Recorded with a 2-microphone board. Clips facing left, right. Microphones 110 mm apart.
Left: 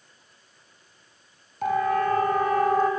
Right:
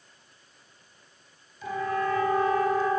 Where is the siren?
65° left (ahead or behind), 4 m; by 2.9 s 55° left (ahead or behind), 3.5 m.